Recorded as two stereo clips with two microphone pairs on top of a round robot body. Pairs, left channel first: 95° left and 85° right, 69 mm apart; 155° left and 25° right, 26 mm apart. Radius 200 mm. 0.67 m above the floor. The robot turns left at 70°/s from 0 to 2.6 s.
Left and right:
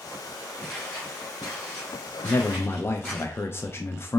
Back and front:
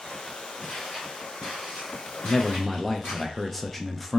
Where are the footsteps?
155° left, 0.9 m; by 3.2 s 170° left, 1.2 m.